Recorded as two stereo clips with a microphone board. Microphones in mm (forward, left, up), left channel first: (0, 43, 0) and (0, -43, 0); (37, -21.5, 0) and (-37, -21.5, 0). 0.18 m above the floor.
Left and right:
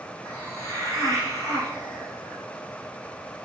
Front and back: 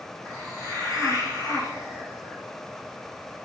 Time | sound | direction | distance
0.2 | a hiss | 40° right | 1.6 m